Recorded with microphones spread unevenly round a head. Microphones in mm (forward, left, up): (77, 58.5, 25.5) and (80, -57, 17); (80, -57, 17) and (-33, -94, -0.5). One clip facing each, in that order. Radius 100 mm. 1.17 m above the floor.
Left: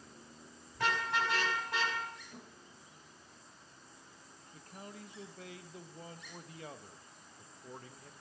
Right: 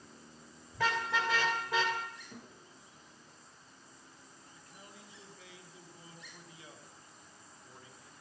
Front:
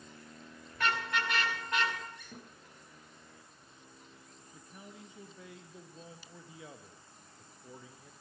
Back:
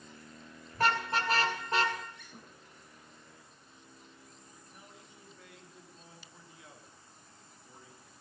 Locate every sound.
0.7 s a car horn: 105° right, 4 m
2.3 s a thud: 20° right, 9 m
4.5 s a man speaking: 50° left, 1.5 m